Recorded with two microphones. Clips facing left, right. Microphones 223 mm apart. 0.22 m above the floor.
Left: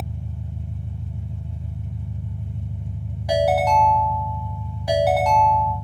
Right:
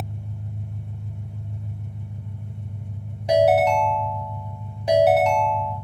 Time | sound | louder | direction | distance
0.0 | an engine running | left 1 dB | 80° left | 1.5 m
3.3 | a ringtone | right 2 dB | 25° right (ahead or behind) | 0.7 m